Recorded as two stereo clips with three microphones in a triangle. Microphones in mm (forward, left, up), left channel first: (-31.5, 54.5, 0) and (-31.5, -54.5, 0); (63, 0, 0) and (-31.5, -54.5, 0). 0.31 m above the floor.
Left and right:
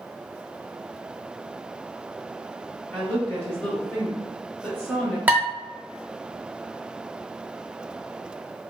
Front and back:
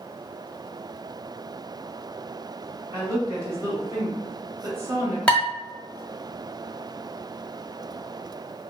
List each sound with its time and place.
2.9 s a woman speaking: 160° left, 1.4 m
5.3 s dishes clattering: 40° right, 0.7 m